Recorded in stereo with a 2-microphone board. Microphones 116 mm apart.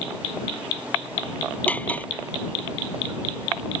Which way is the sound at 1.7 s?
15° left (ahead or behind).